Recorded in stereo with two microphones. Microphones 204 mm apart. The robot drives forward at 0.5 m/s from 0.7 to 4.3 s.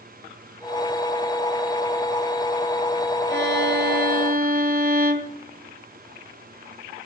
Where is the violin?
55° right (ahead or behind), 1.3 m; by 5.4 s 45° right (ahead or behind), 1.5 m.